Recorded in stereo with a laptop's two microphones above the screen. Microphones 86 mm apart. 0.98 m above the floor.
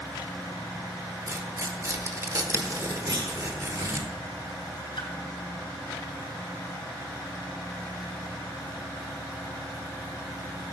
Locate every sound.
1.3 s tearing paper: 35° right (ahead or behind), 1.2 m
3.1 s a clunk: 60° right (ahead or behind), 2.5 m
5.0 s a splash: 85° left, 3.5 m